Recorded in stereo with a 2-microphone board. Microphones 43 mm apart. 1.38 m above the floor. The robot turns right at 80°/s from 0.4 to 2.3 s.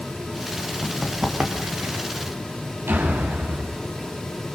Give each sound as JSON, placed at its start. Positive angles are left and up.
{"t": 0.8, "sound": "running footsteps", "side_deg": 5, "distance_m": 4.5}
{"t": 2.9, "sound": "a door slam", "side_deg": -65, "distance_m": 8.5}